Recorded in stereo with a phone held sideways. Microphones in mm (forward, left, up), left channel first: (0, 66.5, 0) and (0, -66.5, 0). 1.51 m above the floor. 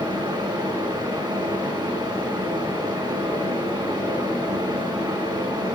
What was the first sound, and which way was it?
A fan, 30° right (ahead or behind).